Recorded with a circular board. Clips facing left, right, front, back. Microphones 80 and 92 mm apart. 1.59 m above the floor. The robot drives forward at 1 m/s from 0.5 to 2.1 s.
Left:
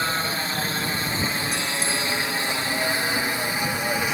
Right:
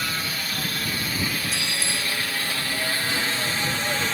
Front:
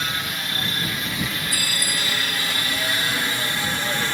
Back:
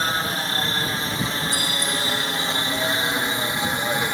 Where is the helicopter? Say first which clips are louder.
Left 4 dB, back 4 dB; 140° left; by 4.1 s 145° left.